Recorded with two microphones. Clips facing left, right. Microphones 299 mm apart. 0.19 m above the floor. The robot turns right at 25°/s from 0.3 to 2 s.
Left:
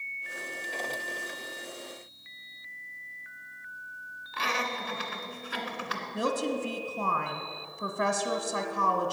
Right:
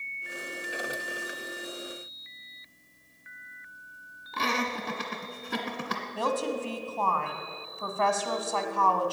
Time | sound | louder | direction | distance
4.3 | laughter | right 4 dB | 50° right (ahead or behind) | 2 m
6.1 | a woman speaking | left 1 dB | 20° left (ahead or behind) | 1.3 m